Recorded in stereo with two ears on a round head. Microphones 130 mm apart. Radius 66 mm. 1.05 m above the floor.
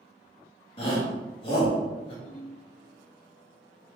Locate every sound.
0.8 s a shout: 35° left (ahead or behind), 1.9 m
2.2 s a ringtone: 75° left (ahead or behind), 2 m